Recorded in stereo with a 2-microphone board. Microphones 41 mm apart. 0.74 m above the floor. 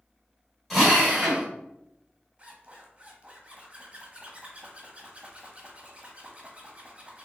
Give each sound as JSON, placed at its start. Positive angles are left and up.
{"t": 0.7, "sound": "a drill", "side_deg": 5, "distance_m": 2.0}
{"t": 2.4, "sound": "a zipper", "side_deg": -25, "distance_m": 1.2}